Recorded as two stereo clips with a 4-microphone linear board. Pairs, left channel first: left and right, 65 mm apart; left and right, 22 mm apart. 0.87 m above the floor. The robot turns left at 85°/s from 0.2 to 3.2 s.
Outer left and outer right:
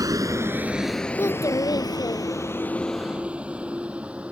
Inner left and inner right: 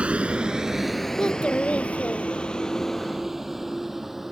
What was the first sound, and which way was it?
A vehicle, 65° right (ahead or behind).